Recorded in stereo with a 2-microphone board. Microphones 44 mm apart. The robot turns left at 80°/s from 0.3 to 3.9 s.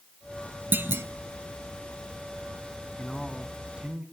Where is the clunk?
50° right (ahead or behind), 0.8 m; by 1.1 s 70° right (ahead or behind), 0.8 m.